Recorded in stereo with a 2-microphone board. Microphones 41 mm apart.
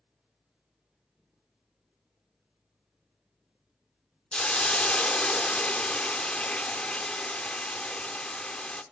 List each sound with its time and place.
4.3 s a hiss: 20° left (ahead or behind), 0.5 m